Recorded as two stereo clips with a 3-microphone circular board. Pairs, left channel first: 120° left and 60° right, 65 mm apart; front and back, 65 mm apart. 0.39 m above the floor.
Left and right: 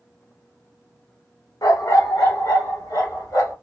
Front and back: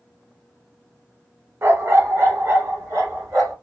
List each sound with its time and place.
1.6 s a dog barking: 130° left, 0.5 m; by 3.5 s 135° left, 1.8 m